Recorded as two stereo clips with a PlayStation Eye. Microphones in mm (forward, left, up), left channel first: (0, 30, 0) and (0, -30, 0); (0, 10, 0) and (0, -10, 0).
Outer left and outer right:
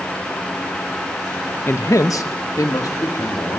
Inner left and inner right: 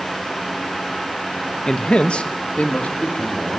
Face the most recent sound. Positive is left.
turn(degrees=85)